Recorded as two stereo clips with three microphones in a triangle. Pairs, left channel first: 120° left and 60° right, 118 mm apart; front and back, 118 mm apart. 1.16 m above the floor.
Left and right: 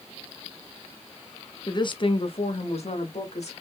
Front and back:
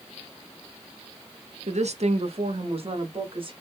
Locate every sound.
1.7 s a woman speaking: 170° left, 0.7 m; by 3.5 s 140° left, 1.8 m